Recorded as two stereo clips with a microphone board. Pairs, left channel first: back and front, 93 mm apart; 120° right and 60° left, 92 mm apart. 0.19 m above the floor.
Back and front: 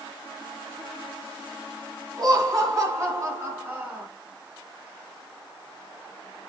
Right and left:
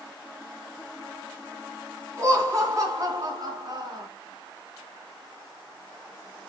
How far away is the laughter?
About 1.9 m.